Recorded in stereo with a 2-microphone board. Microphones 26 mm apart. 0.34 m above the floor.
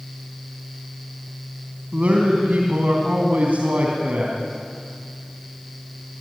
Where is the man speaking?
65° right (ahead or behind), 3 m.